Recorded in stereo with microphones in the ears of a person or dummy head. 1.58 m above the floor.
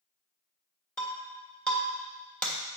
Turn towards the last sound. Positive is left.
turn(degrees=5)  # may be behind; listen again after turning